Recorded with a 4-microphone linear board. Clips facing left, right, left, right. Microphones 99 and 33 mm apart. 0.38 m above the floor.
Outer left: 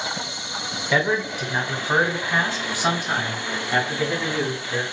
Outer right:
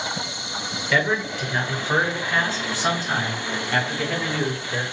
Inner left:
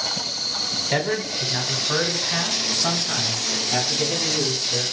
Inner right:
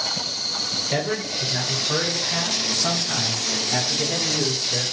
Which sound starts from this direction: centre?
A man speaking, at 0.9 s.